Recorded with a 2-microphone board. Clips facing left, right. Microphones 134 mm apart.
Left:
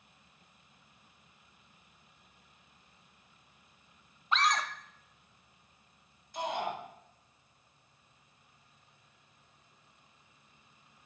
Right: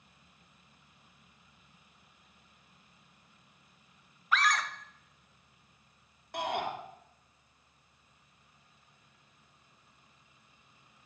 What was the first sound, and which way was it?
A scream, 25° left (ahead or behind).